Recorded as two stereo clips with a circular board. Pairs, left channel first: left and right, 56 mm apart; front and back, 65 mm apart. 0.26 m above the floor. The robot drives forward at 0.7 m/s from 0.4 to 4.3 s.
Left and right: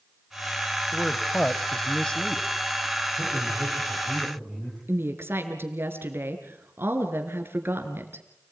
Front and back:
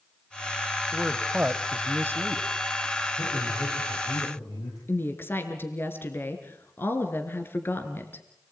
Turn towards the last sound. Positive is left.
turn(degrees=-50)